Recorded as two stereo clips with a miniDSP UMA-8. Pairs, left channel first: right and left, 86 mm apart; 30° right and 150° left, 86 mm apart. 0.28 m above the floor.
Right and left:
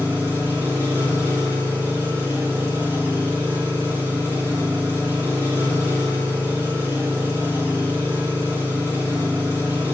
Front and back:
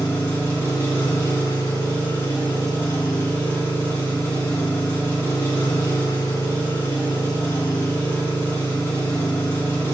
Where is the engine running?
25° left, 2 m.